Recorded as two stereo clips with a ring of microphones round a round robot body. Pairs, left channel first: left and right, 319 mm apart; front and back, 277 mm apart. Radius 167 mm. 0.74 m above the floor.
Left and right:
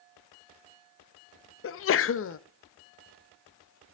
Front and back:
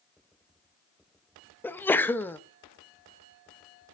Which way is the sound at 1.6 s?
80° left.